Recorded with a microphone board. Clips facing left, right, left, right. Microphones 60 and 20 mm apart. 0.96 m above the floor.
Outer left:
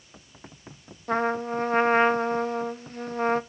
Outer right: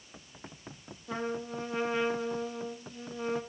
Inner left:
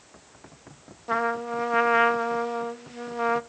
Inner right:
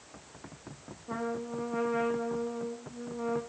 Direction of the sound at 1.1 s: 60° left (ahead or behind).